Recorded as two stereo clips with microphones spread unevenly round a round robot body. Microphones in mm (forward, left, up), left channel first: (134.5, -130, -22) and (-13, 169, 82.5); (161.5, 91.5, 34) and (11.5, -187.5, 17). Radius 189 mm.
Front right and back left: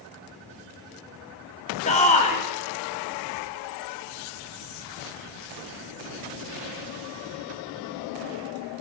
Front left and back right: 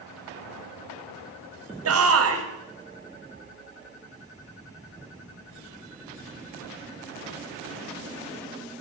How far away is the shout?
About 2 m.